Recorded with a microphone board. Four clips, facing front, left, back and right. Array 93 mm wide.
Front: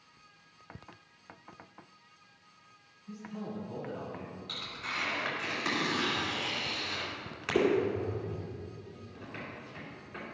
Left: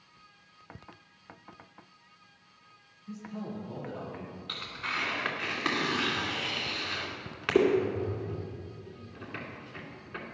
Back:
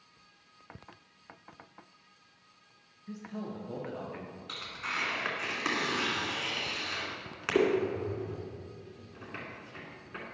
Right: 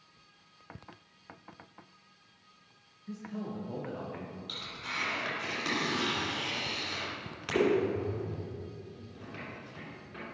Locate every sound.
3.1 s a man speaking: 150° right, 3 m
4.5 s tearing paper: 115° left, 2.5 m